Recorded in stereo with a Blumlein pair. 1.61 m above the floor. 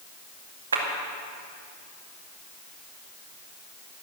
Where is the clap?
70° right, 2 m.